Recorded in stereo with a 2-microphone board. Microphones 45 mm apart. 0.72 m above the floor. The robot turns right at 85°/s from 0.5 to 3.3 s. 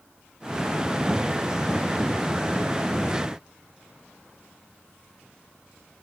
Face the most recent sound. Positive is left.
No sound to turn to.